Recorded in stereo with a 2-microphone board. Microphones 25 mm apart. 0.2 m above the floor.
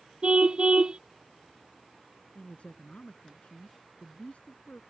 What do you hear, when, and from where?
0.2 s a car horn: 40° right (ahead or behind)
2.4 s a man speaking: 60° left (ahead or behind)